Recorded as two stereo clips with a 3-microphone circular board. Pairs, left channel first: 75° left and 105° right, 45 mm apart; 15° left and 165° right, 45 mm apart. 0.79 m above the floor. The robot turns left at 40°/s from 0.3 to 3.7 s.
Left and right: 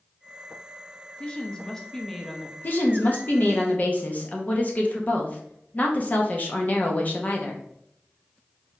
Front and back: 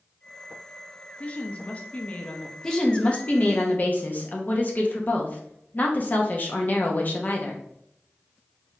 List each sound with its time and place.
1.2 s a woman speaking: 40° left, 0.7 m; by 2.5 s 15° right, 0.7 m
2.6 s a woman speaking: 85° left, 0.8 m; by 7.6 s 45° left, 0.8 m